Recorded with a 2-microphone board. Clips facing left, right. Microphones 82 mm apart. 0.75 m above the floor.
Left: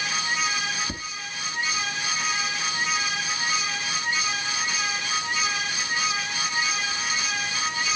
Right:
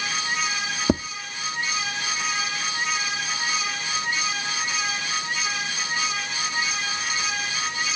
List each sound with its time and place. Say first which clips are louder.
0.9 s tapping: right 13 dB; 70° right (ahead or behind), 0.8 m